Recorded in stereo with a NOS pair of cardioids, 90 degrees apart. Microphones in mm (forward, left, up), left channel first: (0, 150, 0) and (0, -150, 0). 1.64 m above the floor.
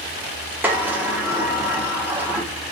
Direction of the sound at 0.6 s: 5° right.